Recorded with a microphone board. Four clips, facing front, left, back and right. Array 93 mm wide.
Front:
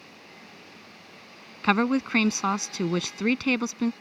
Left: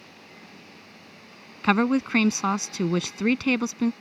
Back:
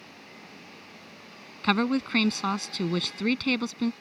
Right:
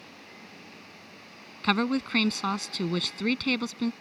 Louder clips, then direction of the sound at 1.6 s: Left 5 dB, front 2 dB; 50° left.